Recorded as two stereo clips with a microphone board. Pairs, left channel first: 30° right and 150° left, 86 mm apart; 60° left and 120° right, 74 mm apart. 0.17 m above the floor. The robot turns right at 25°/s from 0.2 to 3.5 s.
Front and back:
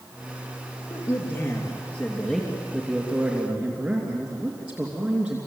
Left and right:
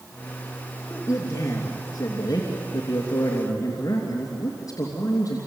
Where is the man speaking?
10° left, 3 m; by 5.4 s 75° left, 3 m.